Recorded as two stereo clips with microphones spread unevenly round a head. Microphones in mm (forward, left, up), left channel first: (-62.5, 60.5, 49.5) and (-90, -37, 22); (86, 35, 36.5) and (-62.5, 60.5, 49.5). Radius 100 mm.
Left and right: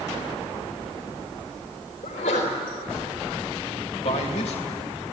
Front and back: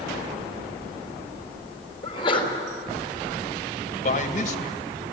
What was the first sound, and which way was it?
A sneeze, 45° left.